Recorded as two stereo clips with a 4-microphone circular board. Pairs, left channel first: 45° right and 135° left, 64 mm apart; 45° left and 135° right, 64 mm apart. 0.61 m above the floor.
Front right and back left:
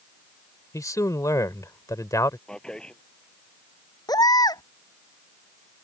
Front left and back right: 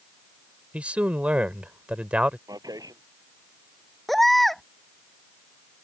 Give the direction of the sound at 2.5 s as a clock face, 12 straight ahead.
4 o'clock.